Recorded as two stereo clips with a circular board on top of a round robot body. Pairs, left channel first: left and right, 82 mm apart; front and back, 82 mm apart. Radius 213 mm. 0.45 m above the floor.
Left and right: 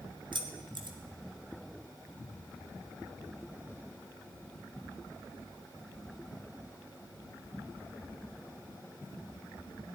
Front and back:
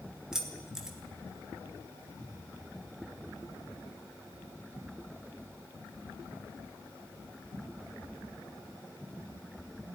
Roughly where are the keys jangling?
Right.